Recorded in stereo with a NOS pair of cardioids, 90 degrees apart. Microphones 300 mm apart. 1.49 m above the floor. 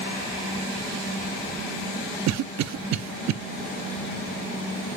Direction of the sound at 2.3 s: 60° right.